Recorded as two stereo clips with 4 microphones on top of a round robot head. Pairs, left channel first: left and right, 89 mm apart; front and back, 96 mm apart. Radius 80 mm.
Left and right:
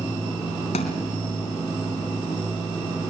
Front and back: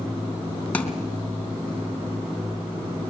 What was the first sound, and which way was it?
A thud, 70° left.